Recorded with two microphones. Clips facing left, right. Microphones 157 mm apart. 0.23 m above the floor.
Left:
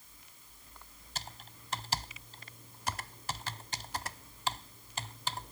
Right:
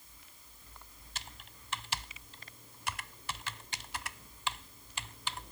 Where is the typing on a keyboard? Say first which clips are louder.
Left 4 dB; 40° left (ahead or behind).